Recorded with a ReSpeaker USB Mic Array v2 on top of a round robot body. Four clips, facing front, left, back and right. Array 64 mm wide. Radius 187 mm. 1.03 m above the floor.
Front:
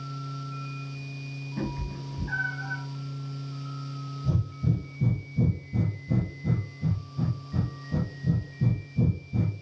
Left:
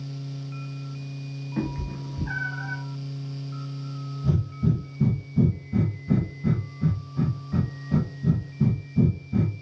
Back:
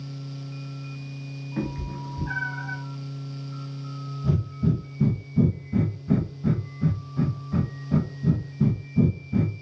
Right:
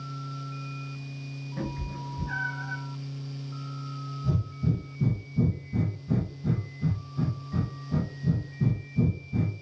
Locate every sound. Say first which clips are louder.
1.6 s a cat meowing: left 5 dB, back 3 dB; 130° left, 1.0 m
4.2 s breathing: left 4 dB, back 4 dB; 150° left, 1.0 m